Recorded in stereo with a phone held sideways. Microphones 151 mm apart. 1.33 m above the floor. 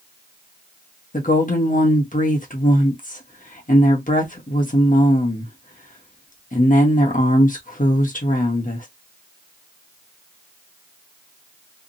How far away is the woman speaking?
About 1.1 m.